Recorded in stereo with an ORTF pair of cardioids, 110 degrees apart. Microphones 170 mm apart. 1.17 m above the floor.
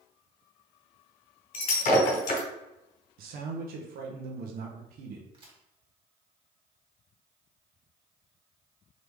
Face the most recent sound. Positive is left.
turn(degrees=-30)